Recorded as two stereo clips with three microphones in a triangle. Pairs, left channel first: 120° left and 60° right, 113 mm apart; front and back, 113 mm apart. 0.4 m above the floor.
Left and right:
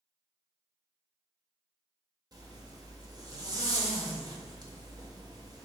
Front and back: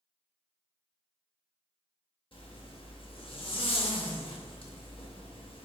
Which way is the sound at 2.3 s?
15° right.